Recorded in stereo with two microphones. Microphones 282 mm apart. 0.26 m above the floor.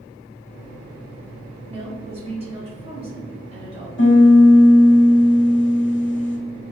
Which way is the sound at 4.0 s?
45° left (ahead or behind).